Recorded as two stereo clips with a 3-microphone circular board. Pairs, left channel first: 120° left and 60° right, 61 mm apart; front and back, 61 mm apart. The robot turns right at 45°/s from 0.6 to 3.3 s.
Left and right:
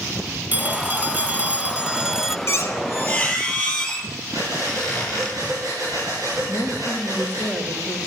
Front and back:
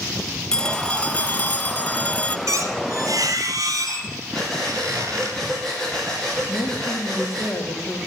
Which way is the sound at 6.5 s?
5° right.